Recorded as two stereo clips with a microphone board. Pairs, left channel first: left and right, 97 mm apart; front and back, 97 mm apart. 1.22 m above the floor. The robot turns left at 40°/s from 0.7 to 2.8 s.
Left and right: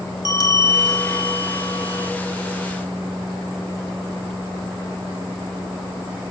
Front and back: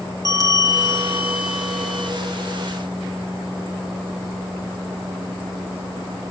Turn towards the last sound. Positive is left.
turn(degrees=50)